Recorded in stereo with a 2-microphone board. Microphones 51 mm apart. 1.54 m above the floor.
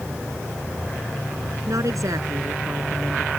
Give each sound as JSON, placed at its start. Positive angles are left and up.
{"t": 1.7, "sound": "a woman speaking", "side_deg": -90}